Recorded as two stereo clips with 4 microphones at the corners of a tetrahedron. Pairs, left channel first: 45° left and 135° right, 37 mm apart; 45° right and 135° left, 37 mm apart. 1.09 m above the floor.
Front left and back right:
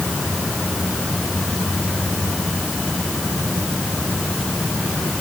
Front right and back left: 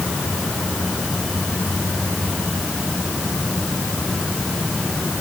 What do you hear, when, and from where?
Only background noise.